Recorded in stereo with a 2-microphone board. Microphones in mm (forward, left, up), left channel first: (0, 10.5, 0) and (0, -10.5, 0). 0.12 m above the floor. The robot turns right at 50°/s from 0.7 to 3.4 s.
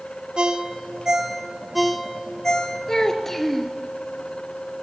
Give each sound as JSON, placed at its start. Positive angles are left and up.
{"t": 0.4, "sound": "a ringtone", "side_deg": -45, "distance_m": 1.4}
{"t": 2.9, "sound": "a child speaking", "side_deg": 30, "distance_m": 1.7}